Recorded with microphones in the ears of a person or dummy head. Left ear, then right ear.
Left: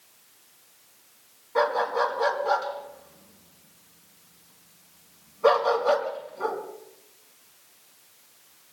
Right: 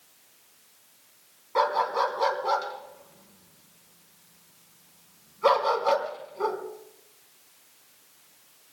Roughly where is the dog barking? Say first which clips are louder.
Even; right.